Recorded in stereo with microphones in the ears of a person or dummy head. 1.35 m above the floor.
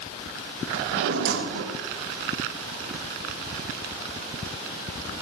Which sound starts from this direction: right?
A drawer, at 0.7 s.